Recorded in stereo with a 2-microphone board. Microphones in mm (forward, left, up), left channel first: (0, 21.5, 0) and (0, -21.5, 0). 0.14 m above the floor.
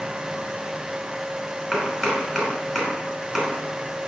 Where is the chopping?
Centre (ahead or behind), 1.0 m.